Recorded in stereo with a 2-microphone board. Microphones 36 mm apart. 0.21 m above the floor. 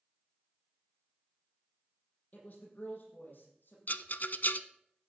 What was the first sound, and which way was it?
A woman speaking, 50° left (ahead or behind).